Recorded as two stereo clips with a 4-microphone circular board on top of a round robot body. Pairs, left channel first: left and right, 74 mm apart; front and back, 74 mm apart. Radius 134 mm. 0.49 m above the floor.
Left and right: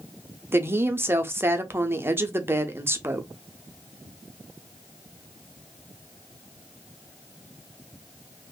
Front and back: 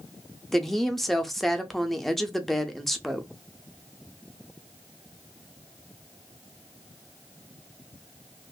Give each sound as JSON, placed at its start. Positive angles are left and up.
{"t": 0.5, "sound": "a woman speaking", "azimuth_deg": -85, "distance_m": 0.7}